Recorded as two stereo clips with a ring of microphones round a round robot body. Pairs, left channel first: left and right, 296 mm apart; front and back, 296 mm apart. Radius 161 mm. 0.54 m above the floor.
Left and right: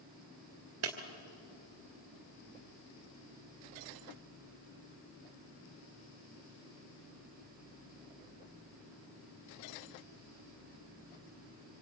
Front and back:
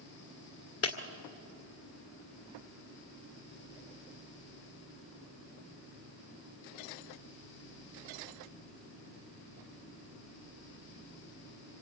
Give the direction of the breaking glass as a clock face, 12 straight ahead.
1 o'clock.